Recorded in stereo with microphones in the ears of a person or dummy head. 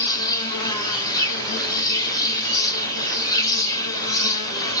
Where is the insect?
25° left (ahead or behind), 0.8 m.